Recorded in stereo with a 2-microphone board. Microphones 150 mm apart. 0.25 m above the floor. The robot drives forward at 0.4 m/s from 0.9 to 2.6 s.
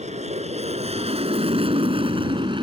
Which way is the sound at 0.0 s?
50° right (ahead or behind).